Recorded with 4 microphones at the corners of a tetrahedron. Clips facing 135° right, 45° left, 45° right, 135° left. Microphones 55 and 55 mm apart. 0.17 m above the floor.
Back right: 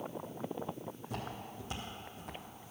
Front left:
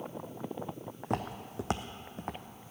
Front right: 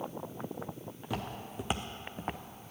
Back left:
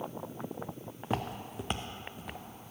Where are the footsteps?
75° left, 0.8 m; by 2.7 s 10° right, 1.0 m.